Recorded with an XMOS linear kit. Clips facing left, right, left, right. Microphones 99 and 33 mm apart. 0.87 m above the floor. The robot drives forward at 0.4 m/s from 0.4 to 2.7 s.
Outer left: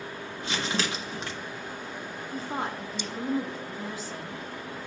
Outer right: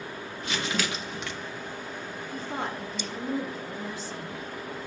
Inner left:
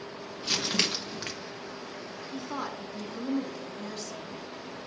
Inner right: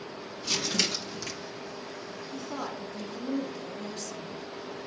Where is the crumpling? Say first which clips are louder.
Even, inner left 1 dB; 30° left (ahead or behind), 1.3 m; by 1.3 s 35° left (ahead or behind), 1.1 m.